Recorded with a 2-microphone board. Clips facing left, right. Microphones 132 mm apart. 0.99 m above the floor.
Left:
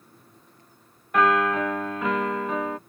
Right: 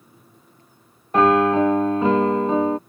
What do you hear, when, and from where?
1.1 s a piano: 30° right (ahead or behind)